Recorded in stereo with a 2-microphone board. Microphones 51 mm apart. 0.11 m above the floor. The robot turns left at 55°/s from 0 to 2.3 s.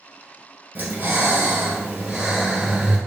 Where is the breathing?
75° right, 1.2 m; by 3.0 s 160° right, 1.2 m.